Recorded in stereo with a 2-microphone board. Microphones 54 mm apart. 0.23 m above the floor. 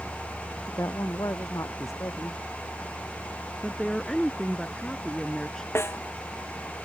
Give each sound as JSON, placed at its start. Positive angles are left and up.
{"t": 0.7, "sound": "a woman speaking", "side_deg": 75}
{"t": 3.6, "sound": "a woman speaking", "side_deg": 10}
{"t": 5.8, "sound": "a snare drum", "side_deg": 50}